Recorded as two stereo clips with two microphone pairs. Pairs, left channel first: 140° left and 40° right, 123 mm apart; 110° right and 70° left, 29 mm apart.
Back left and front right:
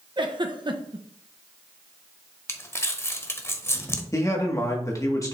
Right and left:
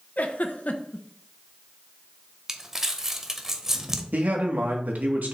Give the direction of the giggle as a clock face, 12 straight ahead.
3 o'clock.